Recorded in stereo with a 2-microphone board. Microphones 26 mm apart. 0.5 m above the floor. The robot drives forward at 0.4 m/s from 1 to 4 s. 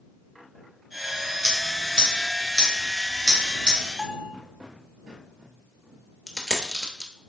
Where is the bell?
20° right (ahead or behind), 0.7 m.